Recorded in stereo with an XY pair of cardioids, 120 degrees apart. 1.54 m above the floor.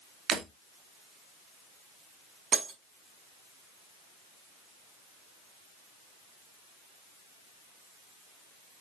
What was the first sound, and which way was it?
Breaking glass, 60° right.